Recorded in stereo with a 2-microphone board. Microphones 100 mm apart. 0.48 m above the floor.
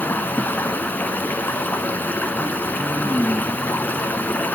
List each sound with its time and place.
0.0 s running water: 15° left (ahead or behind), 0.7 m